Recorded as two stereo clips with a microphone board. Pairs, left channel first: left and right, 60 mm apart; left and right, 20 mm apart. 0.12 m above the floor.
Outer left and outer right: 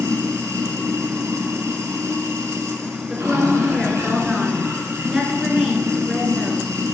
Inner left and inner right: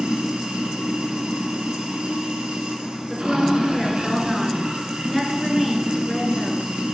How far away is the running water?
About 1.6 m.